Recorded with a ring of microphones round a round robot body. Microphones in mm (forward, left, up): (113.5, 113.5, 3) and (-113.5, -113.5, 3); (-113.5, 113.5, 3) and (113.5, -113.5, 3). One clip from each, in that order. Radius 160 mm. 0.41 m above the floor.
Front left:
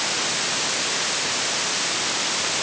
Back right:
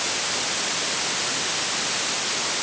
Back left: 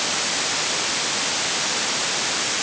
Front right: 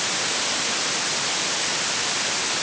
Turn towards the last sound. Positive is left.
No sound to turn to.